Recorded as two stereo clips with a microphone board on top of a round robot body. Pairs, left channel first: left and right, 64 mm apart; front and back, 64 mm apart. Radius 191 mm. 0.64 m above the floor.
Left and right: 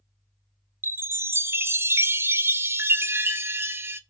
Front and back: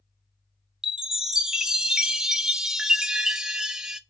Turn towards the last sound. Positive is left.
turn(degrees=-105)